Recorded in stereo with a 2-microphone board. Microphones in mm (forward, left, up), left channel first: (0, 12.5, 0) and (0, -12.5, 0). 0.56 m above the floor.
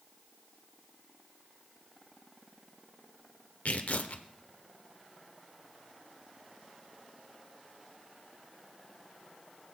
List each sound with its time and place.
3.6 s tearing paper: 65° left (ahead or behind), 0.7 m